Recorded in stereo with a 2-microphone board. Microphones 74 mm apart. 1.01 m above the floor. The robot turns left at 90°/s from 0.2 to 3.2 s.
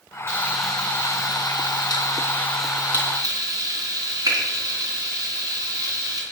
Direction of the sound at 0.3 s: 35° right (ahead or behind).